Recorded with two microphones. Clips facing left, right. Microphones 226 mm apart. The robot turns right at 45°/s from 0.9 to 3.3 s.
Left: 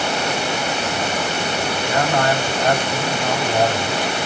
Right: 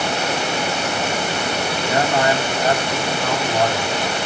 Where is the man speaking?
40° right, 2 m; by 4.1 s 25° left, 2 m.